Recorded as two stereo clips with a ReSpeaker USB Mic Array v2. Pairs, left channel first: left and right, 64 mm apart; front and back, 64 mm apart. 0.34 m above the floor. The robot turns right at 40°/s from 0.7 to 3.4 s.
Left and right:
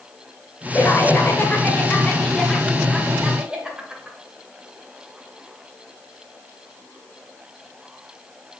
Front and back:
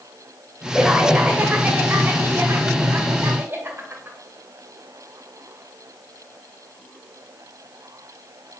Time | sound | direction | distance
0.7 | laughter | 95° left | 1.0 m